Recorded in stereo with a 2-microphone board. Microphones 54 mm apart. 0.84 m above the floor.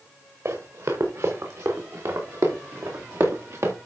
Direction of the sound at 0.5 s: 70° right (ahead or behind).